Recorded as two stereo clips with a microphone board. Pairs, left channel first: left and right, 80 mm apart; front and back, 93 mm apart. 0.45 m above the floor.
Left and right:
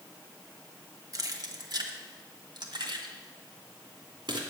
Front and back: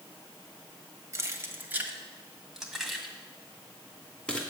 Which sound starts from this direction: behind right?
Keys jangling, at 1.1 s.